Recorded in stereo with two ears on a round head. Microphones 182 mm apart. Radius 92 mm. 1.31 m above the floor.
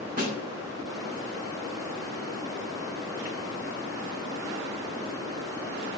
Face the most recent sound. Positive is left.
turn(degrees=-45)  # may be behind; listen again after turning